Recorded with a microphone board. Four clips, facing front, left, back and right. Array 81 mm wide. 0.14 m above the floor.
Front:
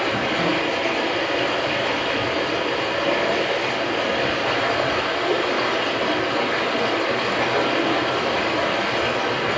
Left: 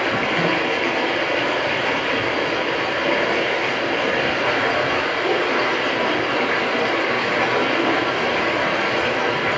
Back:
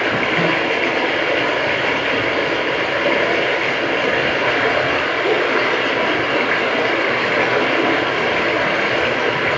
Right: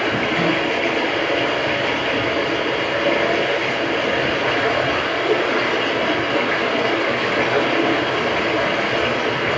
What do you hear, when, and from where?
0.0 s running water: straight behind, 0.9 m